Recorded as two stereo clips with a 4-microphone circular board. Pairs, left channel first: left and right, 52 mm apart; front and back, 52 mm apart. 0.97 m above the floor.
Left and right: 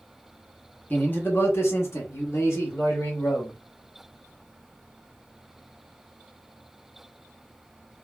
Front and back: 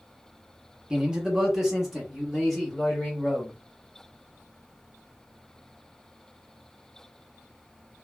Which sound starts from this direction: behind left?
A man speaking, at 0.9 s.